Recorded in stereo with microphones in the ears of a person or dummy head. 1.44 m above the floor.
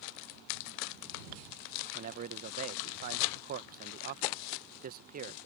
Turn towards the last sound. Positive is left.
turn(degrees=-45)  # may be behind; listen again after turning